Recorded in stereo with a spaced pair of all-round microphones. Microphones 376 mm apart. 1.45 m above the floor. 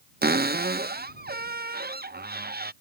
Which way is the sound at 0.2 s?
25° right (ahead or behind).